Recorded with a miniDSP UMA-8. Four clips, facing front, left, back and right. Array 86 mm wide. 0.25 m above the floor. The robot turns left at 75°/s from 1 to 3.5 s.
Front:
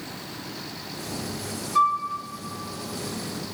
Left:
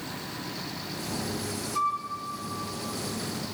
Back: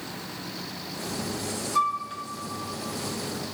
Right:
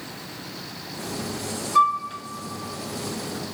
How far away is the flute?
About 0.9 m.